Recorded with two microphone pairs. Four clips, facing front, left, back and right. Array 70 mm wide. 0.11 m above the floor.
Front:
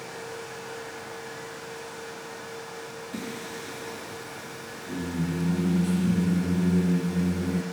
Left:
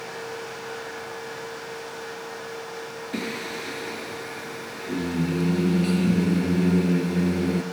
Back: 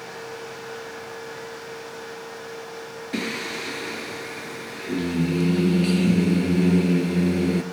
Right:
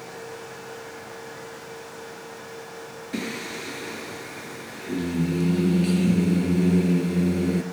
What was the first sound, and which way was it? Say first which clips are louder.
Singing: even, back 9 dB; 170° right.